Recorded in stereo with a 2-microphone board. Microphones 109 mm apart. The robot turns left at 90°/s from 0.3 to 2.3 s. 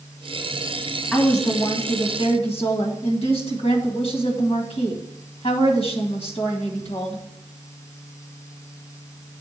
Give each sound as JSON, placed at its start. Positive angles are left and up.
{"t": 1.1, "sound": "a woman speaking", "azimuth_deg": 170, "distance_m": 1.8}